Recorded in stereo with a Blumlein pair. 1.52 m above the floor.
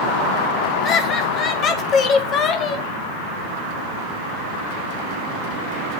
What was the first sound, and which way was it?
Laughter, 30° left.